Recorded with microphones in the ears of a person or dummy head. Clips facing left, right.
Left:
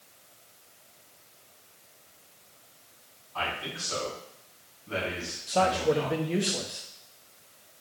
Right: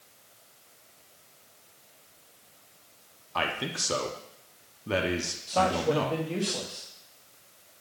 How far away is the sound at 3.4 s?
About 1.0 m.